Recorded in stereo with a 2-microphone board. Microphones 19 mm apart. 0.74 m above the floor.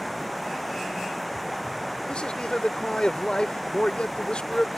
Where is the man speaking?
60° left (ahead or behind).